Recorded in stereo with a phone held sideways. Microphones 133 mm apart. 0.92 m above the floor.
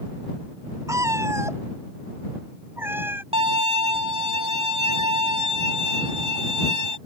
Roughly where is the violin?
Right.